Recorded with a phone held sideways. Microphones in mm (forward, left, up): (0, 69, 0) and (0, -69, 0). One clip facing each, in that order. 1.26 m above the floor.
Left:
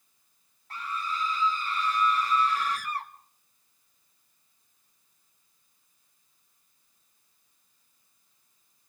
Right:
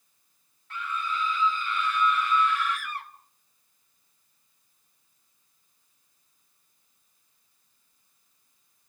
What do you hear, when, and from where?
0.7 s a scream: 35° left (ahead or behind), 2 m